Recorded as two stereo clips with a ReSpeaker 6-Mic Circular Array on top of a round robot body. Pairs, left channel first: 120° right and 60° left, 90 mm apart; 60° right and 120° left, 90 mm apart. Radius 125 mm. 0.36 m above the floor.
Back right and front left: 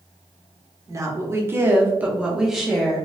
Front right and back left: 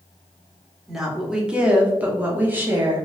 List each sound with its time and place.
0.9 s a woman speaking: 35° left, 1.2 m; by 3.0 s 165° left, 1.1 m